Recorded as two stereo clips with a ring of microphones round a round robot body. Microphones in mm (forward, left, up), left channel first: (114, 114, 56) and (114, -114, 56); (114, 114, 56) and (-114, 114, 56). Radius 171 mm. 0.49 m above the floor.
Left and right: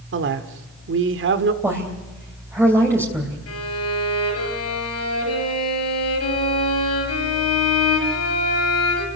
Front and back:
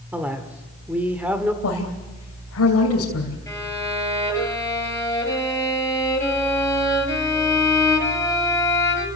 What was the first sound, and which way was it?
A man speaking, 95° right.